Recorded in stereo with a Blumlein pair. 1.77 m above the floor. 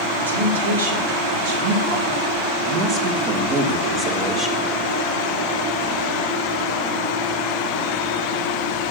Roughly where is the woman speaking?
Right.